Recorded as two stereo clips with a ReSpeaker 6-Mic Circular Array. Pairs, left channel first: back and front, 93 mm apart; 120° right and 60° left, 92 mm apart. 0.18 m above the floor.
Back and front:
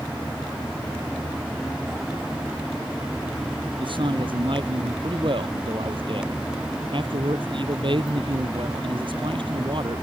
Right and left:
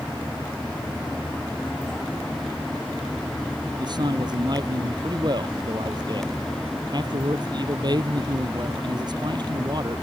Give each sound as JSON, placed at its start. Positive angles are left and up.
{"t": 3.8, "sound": "a man speaking", "azimuth_deg": 20}